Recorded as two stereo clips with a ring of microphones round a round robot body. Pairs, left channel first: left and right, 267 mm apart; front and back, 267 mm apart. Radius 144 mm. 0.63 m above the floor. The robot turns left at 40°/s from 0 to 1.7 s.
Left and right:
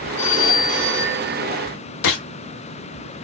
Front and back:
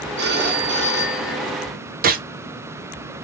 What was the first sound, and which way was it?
A phone ringing, 135° left.